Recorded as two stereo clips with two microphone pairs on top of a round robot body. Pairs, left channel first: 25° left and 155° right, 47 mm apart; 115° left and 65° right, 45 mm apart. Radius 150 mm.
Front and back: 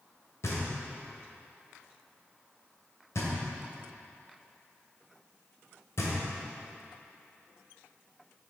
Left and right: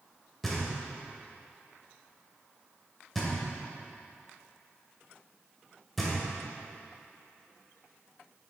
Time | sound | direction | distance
0.4 | knocking | 30° left | 2 m